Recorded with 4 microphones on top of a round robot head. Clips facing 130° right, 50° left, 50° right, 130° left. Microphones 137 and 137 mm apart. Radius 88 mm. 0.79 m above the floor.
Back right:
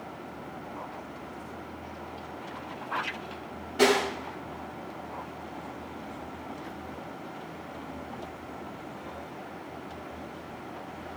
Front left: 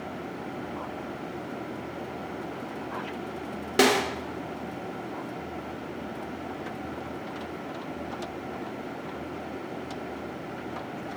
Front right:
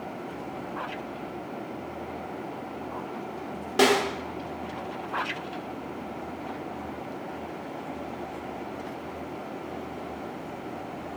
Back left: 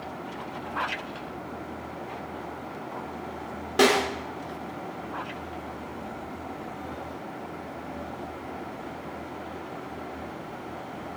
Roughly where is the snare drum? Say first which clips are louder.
Front left 1 dB, even; ahead left.